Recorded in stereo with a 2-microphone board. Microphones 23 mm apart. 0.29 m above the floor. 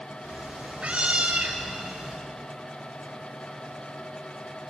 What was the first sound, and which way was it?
A cat meowing, 65° right (ahead or behind).